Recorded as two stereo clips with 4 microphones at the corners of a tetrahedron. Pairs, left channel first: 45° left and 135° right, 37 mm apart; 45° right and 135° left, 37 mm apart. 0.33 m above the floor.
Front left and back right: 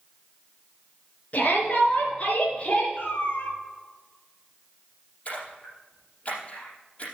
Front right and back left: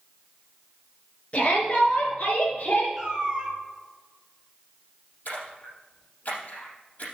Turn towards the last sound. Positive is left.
turn(degrees=-5)